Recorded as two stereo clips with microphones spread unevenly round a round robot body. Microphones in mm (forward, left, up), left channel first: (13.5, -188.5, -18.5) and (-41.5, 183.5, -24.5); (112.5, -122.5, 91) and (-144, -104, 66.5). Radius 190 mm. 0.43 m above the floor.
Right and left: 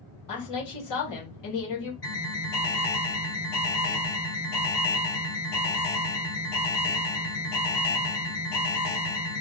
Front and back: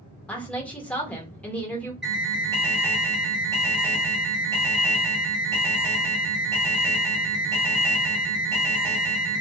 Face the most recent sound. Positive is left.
turn(degrees=-100)